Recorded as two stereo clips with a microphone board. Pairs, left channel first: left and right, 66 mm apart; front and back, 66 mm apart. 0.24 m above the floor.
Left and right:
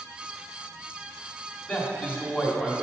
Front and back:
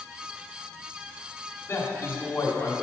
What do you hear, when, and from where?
1.7 s a man speaking: 30° left, 1.4 m